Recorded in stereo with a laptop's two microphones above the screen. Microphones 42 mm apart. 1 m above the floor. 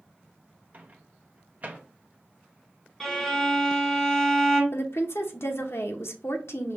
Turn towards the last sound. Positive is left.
turn(degrees=75)  # may be behind; listen again after turning